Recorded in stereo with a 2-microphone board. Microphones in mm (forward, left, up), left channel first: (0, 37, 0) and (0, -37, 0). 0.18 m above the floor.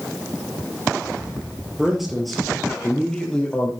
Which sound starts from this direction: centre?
A man speaking, at 1.8 s.